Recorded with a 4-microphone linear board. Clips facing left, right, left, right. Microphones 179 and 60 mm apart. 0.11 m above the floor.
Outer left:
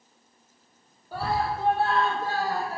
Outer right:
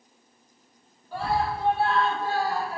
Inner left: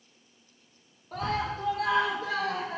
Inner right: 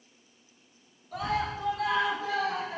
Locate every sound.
1.1 s a scream: 40° left (ahead or behind), 2.5 m; by 2.8 s 45° left (ahead or behind), 4 m